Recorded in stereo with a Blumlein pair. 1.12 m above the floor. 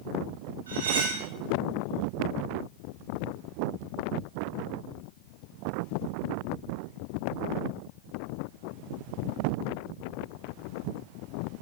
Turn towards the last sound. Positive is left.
turn(degrees=-65)